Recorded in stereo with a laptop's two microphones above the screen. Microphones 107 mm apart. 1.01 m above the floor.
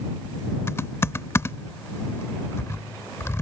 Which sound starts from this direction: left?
Typing on a keyboard, at 0.7 s.